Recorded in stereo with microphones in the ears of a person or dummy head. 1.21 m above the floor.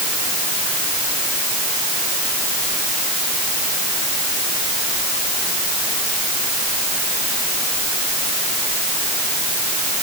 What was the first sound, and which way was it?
Only background noise.